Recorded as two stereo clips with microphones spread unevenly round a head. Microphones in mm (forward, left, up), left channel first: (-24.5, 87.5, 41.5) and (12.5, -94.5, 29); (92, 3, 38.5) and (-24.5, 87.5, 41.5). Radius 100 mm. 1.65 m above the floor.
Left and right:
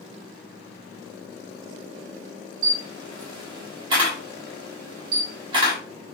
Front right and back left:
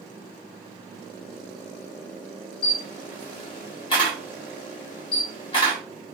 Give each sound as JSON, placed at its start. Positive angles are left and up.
{"t": 2.6, "sound": "a camera shutter", "azimuth_deg": -30, "distance_m": 1.3}